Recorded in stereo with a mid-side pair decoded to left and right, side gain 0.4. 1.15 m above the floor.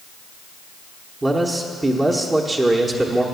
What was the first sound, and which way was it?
A man speaking, 25° right.